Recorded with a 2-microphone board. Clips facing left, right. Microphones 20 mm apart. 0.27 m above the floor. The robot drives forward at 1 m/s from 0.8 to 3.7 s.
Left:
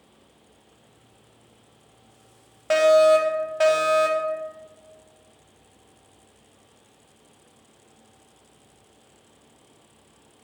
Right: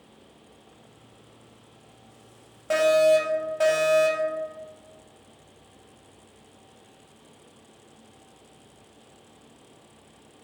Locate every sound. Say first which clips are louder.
2.7 s a fire alarm: left 3 dB; 25° left (ahead or behind), 2 m; by 4.3 s 20° left (ahead or behind), 2.5 m